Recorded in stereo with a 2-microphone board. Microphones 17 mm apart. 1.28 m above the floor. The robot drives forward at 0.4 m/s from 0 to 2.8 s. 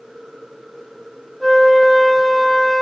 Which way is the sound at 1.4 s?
5° left (ahead or behind).